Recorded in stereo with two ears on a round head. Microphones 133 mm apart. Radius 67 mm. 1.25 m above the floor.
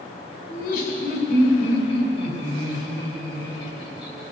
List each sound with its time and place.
0.5 s laughter: 60° left (ahead or behind), 5 m; by 4.2 s 30° left (ahead or behind), 8 m